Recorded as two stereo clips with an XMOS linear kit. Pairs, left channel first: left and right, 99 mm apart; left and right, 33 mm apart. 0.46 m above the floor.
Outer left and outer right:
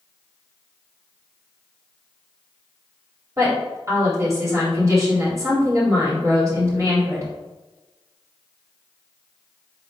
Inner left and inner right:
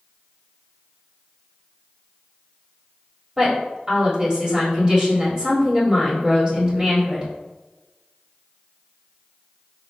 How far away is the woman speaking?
About 2 m.